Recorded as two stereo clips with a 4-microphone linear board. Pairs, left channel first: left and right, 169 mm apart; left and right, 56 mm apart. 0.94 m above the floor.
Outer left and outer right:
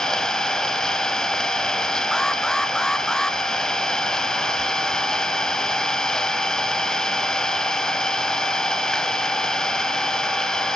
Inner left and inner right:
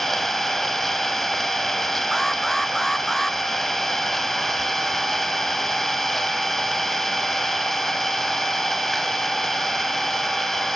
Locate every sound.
0.0 s an engine running: 5° left (ahead or behind), 1.8 m
2.1 s an alarm: 5° left (ahead or behind), 0.9 m